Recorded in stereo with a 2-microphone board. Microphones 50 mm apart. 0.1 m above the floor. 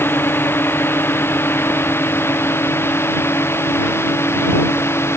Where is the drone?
45° left (ahead or behind); by 5.2 s 55° left (ahead or behind).